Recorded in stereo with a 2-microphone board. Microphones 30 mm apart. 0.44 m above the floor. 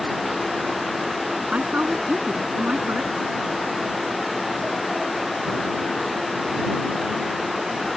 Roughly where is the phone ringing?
I don't hear a phone ringing.